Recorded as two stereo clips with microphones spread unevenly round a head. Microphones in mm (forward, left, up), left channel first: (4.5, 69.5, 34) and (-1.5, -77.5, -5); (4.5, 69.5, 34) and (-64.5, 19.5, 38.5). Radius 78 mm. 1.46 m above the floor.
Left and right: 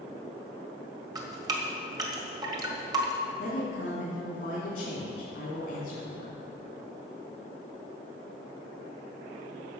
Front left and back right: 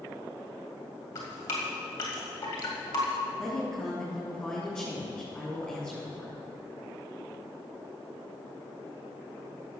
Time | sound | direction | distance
1.1 | dripping | 30° right | 1.8 m
3.4 | a woman speaking | 120° left | 3 m